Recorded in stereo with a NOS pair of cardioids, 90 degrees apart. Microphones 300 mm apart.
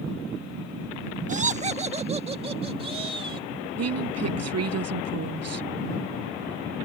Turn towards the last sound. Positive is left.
turn(degrees=-55)